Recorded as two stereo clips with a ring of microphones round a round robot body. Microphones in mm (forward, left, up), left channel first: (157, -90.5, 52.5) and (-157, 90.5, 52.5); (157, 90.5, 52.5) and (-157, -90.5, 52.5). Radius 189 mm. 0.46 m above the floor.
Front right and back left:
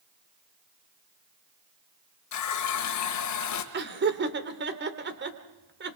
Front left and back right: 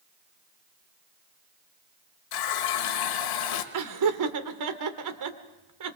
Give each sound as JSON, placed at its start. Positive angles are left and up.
{"t": 2.3, "sound": "a running tap", "azimuth_deg": 10, "distance_m": 1.7}
{"t": 3.7, "sound": "laughter", "azimuth_deg": -155, "distance_m": 2.0}